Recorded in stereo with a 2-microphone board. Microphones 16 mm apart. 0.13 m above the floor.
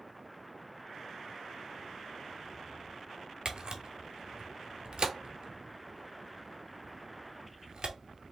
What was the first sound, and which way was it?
A camera shutter, 60° right (ahead or behind).